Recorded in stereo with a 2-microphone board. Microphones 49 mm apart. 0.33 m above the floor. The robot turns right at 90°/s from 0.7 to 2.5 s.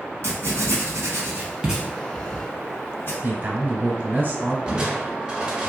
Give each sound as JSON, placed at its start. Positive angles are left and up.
{"t": 0.2, "sound": "writing", "side_deg": -75, "distance_m": 0.8}
{"t": 3.2, "sound": "a man speaking", "side_deg": -40, "distance_m": 1.3}
{"t": 4.7, "sound": "crushing", "side_deg": -20, "distance_m": 0.6}